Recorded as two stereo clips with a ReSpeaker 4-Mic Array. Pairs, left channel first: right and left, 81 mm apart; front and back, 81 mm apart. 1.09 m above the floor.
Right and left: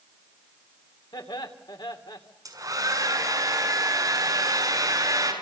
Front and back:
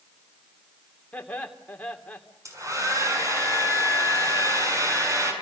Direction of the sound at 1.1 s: 75° right.